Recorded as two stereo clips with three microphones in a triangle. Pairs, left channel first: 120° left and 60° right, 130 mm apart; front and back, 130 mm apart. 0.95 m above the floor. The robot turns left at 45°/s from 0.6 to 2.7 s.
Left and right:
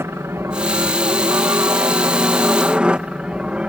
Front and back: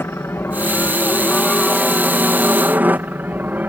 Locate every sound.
0.0 s a helicopter: 35° right; by 3.7 s 130° right